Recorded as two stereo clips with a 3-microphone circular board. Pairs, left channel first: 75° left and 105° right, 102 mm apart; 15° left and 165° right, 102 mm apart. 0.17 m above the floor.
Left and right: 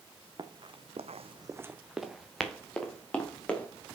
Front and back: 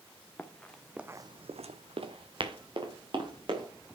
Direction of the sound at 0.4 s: 60° right.